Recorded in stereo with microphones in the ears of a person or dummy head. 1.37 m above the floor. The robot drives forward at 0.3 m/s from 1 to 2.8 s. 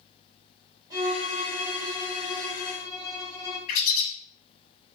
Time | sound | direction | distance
0.9 | a violin | 25° right (ahead or behind) | 1.3 m
3.7 | a bird | 45° left (ahead or behind) | 0.7 m